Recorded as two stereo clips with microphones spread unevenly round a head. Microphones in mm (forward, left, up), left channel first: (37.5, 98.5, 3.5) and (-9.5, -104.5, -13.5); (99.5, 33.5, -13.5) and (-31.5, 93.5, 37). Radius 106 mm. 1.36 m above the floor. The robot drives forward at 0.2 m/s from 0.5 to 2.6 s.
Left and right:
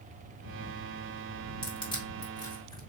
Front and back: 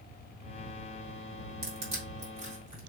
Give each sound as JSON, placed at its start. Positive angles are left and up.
{"t": 1.6, "sound": "crushing", "azimuth_deg": 140, "distance_m": 2.5}